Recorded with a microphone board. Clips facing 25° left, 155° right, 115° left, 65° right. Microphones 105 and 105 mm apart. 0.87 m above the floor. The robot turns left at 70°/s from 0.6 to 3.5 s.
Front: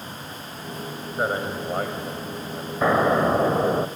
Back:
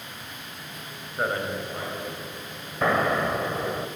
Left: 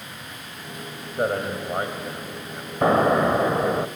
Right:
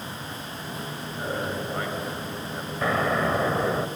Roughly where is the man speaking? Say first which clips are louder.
Front 2 dB, left 6 dB; left.